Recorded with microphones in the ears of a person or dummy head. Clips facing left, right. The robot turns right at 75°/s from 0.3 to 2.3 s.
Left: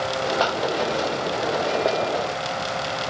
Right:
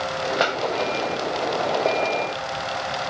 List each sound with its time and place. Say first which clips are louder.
0.4 s a clap: right 1 dB; 30° right (ahead or behind); by 0.7 s 45° right (ahead or behind)